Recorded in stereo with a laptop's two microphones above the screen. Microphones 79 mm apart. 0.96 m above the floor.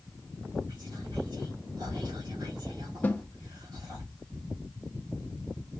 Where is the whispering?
65° right (ahead or behind), 2 m.